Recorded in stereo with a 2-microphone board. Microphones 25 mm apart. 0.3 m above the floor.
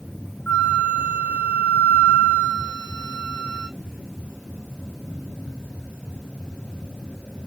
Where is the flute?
80° left, 3 m.